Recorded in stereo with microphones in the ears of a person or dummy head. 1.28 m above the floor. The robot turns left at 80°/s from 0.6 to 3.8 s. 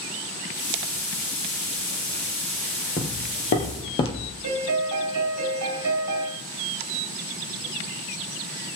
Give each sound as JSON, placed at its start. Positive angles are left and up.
{"t": 3.0, "sound": "footsteps", "side_deg": 15, "distance_m": 1.3}
{"t": 4.4, "sound": "a piano", "side_deg": -85, "distance_m": 3.0}